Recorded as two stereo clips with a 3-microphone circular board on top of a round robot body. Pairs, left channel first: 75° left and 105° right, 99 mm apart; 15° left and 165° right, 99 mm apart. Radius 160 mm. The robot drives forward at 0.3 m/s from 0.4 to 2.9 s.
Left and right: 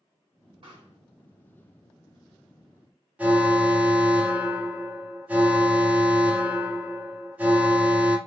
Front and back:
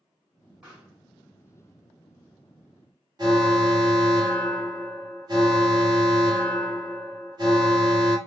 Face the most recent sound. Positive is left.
turn(degrees=-175)